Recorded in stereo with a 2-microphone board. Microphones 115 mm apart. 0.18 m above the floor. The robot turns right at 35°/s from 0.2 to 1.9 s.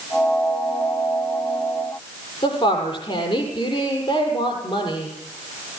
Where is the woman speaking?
50° left (ahead or behind), 6.5 m.